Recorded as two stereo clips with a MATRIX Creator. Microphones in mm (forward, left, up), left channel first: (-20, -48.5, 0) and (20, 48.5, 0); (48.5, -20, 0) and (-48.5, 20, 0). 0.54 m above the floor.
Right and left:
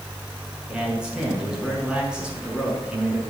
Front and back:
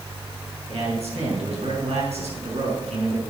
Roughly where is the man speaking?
Behind left.